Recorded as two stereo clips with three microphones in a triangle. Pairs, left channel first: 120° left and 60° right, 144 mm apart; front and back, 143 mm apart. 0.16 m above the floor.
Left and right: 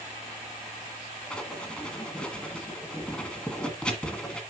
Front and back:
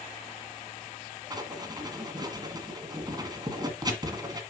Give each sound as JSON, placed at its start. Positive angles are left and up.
{"t": 1.3, "sound": "writing", "azimuth_deg": -165, "distance_m": 1.6}